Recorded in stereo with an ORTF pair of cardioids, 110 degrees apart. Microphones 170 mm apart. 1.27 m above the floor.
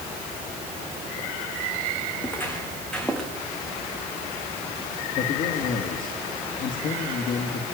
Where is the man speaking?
60° left, 2.5 m.